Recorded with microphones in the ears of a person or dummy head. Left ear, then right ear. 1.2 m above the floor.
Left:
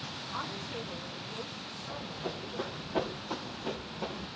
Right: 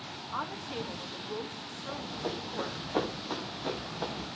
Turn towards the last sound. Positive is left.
turn(degrees=-30)  # may be behind; listen again after turning